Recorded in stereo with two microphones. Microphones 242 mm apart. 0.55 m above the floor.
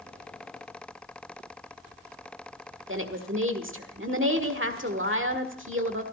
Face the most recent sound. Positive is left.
turn(degrees=-55)  # may be behind; listen again after turning